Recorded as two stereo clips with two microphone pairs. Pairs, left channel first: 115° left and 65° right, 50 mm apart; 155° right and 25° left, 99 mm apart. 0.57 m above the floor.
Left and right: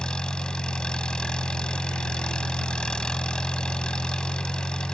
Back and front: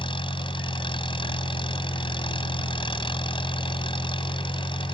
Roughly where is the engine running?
Behind.